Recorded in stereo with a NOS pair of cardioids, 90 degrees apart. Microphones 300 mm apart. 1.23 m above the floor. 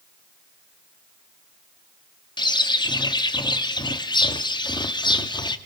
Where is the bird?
15° left, 2 m.